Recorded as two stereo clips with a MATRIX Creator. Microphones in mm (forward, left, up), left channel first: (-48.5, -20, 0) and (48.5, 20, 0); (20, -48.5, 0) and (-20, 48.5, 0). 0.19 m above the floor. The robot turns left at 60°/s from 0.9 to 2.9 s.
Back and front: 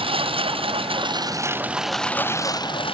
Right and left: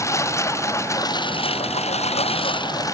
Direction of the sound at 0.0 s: 5° right.